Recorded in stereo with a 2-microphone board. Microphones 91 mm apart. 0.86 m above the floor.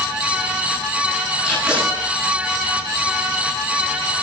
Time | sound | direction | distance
1.4 | tape being pulled | 5° right (ahead or behind) | 9 m